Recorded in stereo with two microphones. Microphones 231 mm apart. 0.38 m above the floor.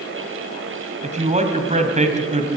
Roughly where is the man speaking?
Right.